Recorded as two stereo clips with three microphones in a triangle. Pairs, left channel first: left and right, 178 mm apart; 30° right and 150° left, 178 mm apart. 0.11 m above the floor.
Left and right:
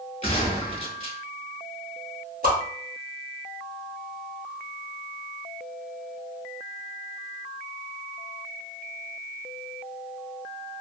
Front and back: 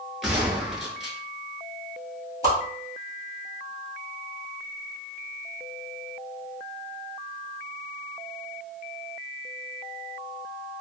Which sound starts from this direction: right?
A whoosh, at 2.4 s.